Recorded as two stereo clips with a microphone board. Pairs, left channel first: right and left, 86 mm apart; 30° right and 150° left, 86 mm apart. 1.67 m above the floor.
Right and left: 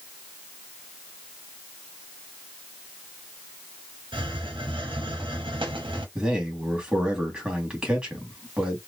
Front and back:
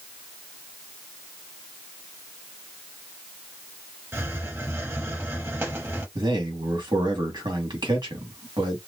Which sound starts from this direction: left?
A hiss, at 4.1 s.